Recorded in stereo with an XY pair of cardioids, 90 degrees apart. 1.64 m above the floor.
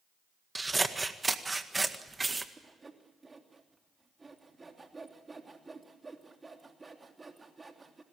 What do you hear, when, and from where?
0.6 s scissors: 20° right, 1.8 m
2.6 s sawing: 25° right, 3 m